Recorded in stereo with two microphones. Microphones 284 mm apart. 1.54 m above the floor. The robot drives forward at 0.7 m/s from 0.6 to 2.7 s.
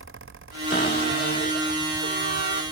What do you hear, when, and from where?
0.7 s a cupboard door: 30° left (ahead or behind), 3 m; by 2.6 s 50° left (ahead or behind), 1.9 m